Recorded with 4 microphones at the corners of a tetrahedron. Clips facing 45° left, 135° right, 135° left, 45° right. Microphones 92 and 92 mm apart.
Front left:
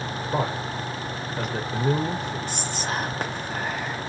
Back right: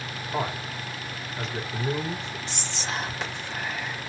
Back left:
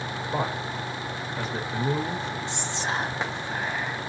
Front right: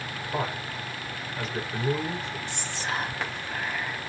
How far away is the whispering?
About 0.8 m.